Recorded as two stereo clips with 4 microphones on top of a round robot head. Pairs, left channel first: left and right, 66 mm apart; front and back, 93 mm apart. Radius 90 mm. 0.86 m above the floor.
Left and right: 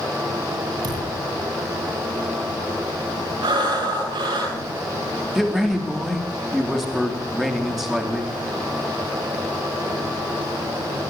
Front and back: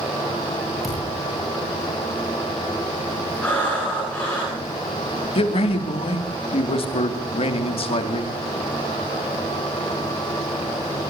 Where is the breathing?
80° right, 9.5 m.